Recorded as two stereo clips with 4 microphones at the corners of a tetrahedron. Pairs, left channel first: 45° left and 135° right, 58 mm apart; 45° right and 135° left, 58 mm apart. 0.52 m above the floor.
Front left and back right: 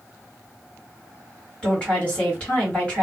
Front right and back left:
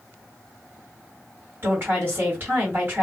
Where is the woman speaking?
105° left, 1.8 m.